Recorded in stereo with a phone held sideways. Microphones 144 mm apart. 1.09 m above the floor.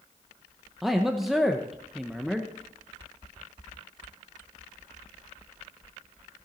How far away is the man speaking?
About 0.8 m.